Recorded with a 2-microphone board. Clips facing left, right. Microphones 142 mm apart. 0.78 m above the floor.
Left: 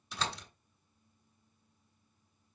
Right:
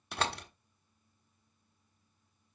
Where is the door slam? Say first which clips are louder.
Right 4 dB; 65° right (ahead or behind), 1.1 m.